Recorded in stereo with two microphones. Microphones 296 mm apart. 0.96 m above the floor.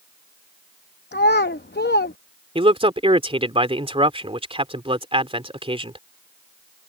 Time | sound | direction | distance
1.1 | a child speaking | 35° left (ahead or behind) | ?
2.5 | a man speaking | 20° right (ahead or behind) | ?